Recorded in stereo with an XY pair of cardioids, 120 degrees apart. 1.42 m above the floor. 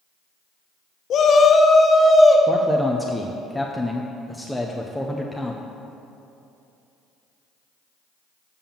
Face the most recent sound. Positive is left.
turn(degrees=5)